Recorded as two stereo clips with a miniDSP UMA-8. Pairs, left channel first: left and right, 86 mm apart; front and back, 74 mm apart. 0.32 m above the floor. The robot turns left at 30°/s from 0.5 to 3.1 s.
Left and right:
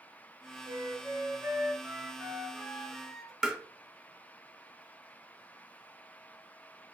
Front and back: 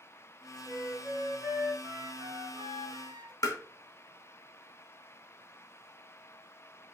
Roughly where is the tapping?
Ahead.